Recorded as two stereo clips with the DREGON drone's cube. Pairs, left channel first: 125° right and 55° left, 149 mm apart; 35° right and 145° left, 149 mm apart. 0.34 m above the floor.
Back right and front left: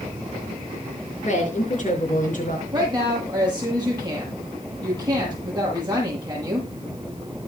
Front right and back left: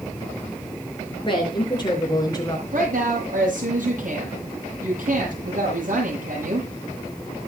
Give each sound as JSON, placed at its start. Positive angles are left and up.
{"t": 1.2, "sound": "a woman speaking", "azimuth_deg": -90, "distance_m": 5.5}
{"t": 2.7, "sound": "a woman speaking", "azimuth_deg": 115, "distance_m": 9.5}